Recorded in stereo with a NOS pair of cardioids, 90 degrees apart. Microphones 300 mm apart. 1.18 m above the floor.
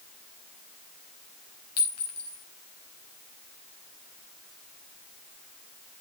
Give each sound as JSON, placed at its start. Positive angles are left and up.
{"t": 1.8, "sound": "a clink", "azimuth_deg": 55, "distance_m": 4.5}